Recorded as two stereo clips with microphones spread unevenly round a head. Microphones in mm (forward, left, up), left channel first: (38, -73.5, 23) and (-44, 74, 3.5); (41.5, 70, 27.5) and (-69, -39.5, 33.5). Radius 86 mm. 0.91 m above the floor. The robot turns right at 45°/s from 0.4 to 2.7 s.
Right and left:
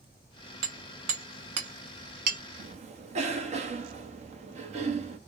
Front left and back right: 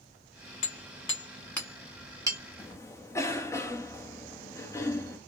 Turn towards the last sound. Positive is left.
turn(degrees=110)